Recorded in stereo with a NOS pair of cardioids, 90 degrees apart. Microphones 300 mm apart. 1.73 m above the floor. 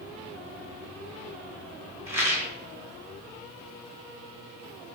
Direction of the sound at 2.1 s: 10° right.